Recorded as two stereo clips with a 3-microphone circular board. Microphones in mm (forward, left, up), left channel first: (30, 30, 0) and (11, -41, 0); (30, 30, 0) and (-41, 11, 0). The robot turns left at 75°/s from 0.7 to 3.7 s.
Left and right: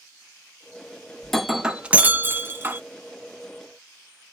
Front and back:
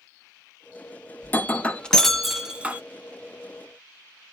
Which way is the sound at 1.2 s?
Straight ahead.